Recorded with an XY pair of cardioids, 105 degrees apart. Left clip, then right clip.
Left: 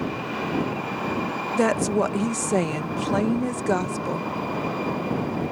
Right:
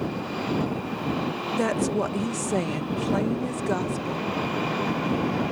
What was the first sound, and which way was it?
A woman speaking, 35° left.